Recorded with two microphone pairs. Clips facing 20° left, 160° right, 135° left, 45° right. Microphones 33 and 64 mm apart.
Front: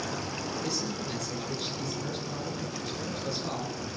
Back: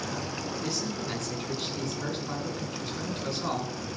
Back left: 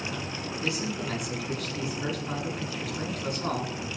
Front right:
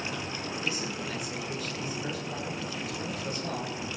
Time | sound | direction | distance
0.6 | a man speaking | 145° left | 10 m